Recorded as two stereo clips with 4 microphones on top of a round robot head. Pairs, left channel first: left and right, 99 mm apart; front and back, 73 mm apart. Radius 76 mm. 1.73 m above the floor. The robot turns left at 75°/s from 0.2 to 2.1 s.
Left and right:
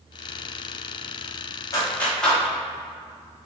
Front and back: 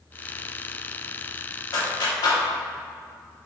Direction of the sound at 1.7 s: 35° left.